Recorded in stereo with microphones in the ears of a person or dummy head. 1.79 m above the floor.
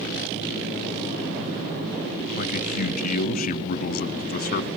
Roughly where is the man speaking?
Left.